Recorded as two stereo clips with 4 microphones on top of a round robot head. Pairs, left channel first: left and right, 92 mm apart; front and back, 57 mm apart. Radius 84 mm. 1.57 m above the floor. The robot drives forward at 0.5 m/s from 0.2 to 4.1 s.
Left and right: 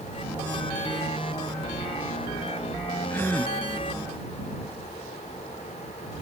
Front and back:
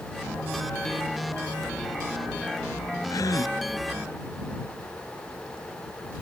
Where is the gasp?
15° left.